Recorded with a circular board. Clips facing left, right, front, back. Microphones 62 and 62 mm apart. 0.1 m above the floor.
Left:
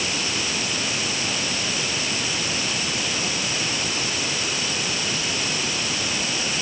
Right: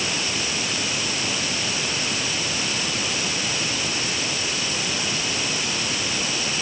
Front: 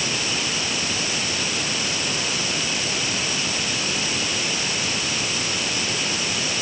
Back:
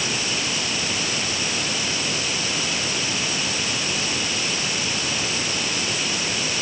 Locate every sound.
Only background noise.